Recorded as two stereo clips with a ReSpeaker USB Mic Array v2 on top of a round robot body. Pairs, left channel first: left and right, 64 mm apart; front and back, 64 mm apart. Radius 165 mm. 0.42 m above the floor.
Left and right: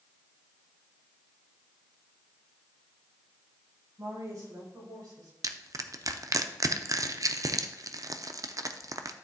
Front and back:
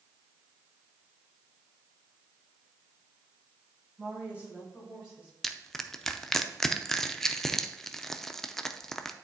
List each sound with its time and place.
4.0 s a woman speaking: 120° right, 3.5 m; by 5.3 s 100° right, 4.5 m
5.4 s crushing: 85° right, 0.7 m